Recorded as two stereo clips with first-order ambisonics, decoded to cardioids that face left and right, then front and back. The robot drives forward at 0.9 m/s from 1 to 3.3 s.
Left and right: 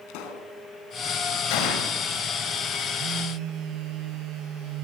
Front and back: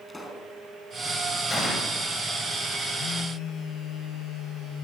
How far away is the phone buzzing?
About 1.8 m.